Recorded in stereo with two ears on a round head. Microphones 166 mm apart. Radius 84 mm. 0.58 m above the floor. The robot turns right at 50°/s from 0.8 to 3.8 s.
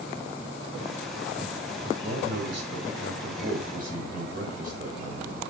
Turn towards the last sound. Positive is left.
turn(degrees=-45)